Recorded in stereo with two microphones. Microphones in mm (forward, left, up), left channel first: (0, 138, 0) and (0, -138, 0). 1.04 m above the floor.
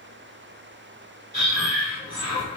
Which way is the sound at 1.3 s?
20° right (ahead or behind).